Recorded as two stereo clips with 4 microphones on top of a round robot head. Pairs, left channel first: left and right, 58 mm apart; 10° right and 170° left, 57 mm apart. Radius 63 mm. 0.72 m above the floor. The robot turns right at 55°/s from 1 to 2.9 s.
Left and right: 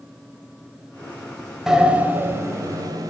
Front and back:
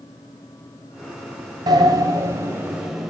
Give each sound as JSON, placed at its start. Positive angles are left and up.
{"t": 1.7, "sound": "a sliding door", "azimuth_deg": -170, "distance_m": 1.6}